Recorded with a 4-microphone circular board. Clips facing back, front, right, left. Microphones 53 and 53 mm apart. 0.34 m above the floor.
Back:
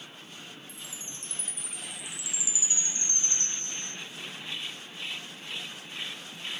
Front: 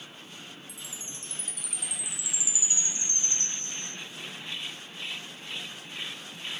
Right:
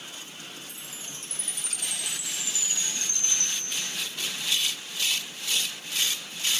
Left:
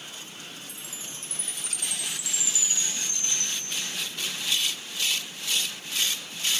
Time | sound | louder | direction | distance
0.7 | a chime | even, even | 125° right | 0.5 m